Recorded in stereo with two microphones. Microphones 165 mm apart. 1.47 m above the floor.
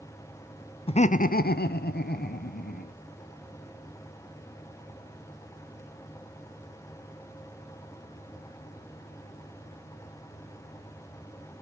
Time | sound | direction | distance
0.9 | laughter | 35° left (ahead or behind) | 0.6 m